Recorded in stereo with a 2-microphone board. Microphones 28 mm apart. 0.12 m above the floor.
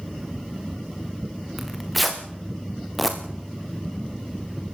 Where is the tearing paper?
Centre (ahead or behind), 3 m.